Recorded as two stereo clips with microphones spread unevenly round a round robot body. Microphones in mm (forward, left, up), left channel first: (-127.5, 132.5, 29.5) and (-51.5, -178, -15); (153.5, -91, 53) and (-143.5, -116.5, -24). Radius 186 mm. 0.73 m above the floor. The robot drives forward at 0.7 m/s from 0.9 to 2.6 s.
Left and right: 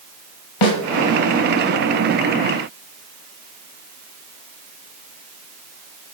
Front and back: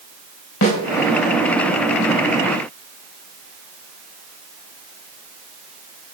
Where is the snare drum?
65° left, 5 m.